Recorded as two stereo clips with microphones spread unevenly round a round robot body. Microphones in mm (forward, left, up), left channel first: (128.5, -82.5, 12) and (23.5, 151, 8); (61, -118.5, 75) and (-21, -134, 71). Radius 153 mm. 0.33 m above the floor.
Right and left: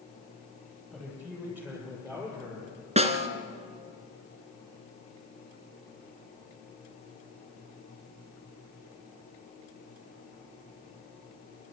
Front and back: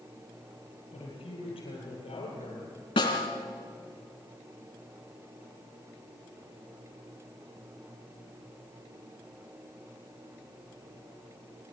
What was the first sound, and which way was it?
A woman speaking, 30° left.